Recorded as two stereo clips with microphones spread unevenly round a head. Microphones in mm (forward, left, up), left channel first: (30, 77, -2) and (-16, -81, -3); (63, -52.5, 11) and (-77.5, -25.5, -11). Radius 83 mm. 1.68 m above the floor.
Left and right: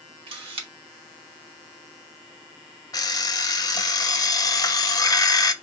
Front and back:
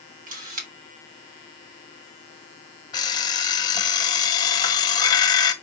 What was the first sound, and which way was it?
A camera shutter, 165° right.